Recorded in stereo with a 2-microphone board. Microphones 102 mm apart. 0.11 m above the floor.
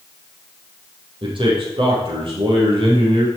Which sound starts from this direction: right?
A man speaking, at 1.2 s.